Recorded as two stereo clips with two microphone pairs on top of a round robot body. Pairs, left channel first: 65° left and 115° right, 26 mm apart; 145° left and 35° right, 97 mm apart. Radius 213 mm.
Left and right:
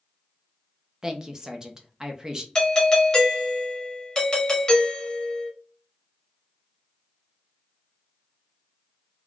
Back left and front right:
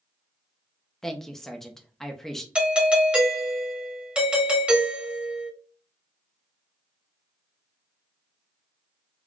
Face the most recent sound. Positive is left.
turn(degrees=30)